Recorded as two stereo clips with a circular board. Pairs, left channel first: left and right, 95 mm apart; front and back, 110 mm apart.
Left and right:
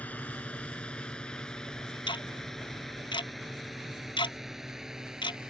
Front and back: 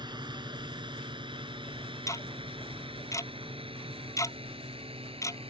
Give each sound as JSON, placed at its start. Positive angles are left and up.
{"t": 0.0, "sound": "a drone", "azimuth_deg": 160}
{"t": 2.1, "sound": "ticking", "azimuth_deg": 60}